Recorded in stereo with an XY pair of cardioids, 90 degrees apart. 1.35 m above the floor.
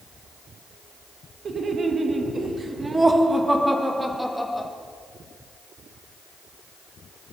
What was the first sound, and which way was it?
Laughter, 55° right.